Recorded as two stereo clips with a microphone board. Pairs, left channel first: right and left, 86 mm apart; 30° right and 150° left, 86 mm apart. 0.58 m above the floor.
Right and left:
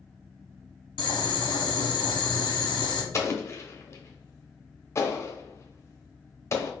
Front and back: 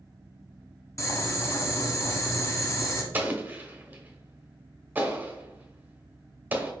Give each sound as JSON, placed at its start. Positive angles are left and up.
{"t": 1.0, "sound": "boiling", "azimuth_deg": -85, "distance_m": 0.9}
{"t": 3.1, "sound": "an explosion", "azimuth_deg": -145, "distance_m": 0.9}